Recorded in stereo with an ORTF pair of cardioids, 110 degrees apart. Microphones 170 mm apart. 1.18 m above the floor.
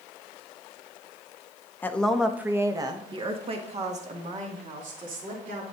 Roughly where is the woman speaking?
Ahead.